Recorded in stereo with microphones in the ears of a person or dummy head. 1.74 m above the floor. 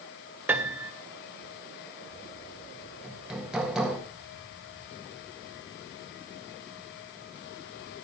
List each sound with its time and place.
0.5 s a piano: 10° right (ahead or behind), 1.4 m
3.0 s hammering: 5° right (ahead or behind), 1.7 m